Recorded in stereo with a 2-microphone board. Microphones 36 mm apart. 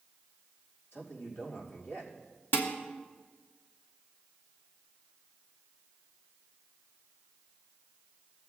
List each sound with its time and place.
0.9 s a man speaking: 80° left, 4.5 m
2.5 s dishes clattering: 80° left, 1.4 m